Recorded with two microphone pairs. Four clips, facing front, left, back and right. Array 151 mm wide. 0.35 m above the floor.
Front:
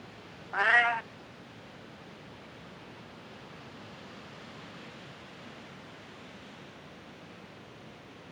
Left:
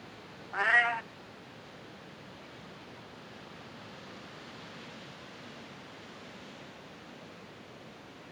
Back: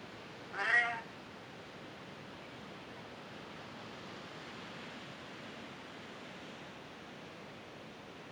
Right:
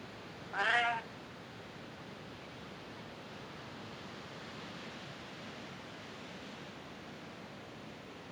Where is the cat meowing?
10° left, 0.5 m.